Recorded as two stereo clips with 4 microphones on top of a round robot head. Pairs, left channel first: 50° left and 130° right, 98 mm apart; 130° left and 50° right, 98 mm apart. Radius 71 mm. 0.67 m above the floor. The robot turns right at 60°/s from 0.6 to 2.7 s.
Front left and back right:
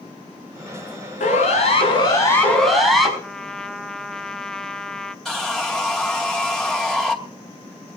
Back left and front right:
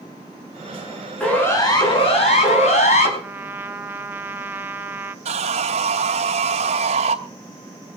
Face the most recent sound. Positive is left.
turn(degrees=-35)